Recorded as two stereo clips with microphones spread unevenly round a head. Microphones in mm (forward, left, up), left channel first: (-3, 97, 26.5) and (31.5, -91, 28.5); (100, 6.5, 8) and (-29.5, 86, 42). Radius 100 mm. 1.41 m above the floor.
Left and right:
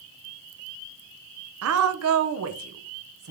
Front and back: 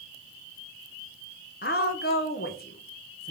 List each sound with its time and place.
1.6 s a woman speaking: 75° right, 0.9 m